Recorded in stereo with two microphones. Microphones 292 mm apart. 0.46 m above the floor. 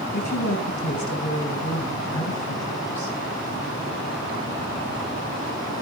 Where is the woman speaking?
70° left (ahead or behind), 3.5 m.